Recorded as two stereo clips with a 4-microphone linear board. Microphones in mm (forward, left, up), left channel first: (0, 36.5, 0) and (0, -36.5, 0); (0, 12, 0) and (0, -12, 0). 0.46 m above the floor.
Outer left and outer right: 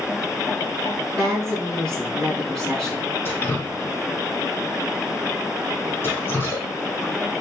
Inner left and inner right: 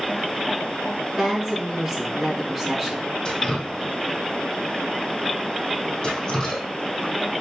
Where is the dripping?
30° left (ahead or behind), 3 m.